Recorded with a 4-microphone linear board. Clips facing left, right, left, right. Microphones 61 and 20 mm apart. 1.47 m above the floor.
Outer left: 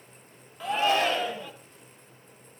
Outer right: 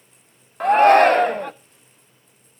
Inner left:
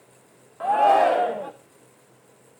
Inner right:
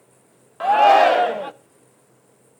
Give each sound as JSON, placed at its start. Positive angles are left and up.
{"t": 0.6, "sound": "a shout", "side_deg": -55, "distance_m": 0.6}